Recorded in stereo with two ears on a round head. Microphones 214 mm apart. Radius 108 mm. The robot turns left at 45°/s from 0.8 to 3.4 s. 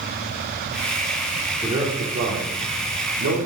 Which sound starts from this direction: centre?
A man speaking, at 1.6 s.